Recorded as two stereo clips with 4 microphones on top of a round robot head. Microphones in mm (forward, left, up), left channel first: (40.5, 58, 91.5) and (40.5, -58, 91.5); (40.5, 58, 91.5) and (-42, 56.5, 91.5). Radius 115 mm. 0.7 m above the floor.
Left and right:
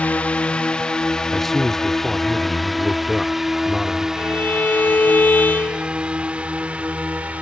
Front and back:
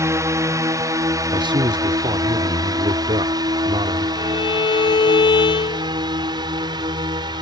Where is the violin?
15° left.